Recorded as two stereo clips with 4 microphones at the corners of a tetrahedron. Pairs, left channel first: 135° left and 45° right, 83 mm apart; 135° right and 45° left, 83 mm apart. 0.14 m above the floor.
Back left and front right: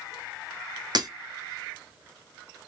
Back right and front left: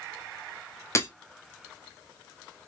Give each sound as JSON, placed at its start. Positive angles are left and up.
{"t": 0.9, "sound": "breaking glass", "azimuth_deg": -80, "distance_m": 0.7}